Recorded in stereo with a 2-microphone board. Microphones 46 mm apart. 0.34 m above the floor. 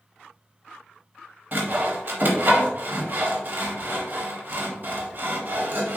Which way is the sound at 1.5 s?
50° right (ahead or behind).